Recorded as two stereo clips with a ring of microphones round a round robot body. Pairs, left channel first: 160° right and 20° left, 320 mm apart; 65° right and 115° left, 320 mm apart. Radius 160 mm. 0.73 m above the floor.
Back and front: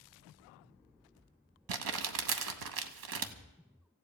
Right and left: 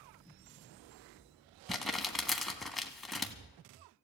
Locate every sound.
1.7 s crumpling: 20° left, 1.0 m